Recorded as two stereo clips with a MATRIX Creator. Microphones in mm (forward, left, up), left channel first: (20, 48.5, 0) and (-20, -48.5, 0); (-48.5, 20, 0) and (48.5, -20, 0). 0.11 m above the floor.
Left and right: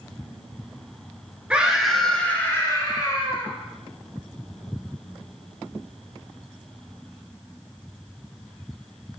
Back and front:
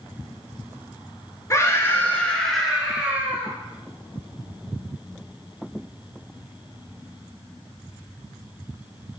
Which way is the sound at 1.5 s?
Straight behind.